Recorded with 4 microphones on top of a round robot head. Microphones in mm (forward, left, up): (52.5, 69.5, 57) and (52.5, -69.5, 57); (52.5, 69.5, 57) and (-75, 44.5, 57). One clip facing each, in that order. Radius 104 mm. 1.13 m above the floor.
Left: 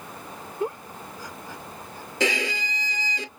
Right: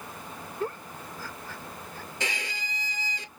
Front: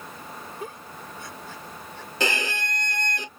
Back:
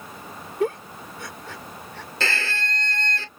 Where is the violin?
85° left.